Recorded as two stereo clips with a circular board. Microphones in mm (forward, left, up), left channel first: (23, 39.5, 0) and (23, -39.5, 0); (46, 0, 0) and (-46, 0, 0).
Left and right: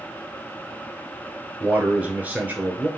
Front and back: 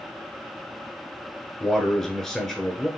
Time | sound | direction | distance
1.6 | a man speaking | 80° right | 1.1 m